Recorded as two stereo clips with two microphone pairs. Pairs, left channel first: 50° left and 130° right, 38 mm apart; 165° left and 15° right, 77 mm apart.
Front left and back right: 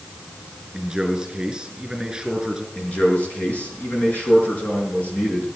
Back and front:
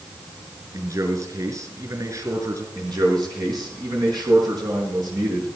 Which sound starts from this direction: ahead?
A man speaking, at 2.8 s.